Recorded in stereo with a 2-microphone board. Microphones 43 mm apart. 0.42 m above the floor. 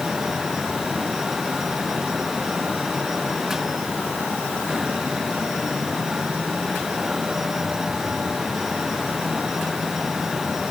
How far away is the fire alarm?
I don't hear a fire alarm.